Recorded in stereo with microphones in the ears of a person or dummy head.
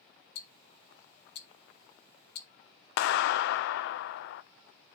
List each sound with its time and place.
0.3 s ticking: 60° left (ahead or behind), 1.1 m
3.0 s a clap: 65° left (ahead or behind), 0.6 m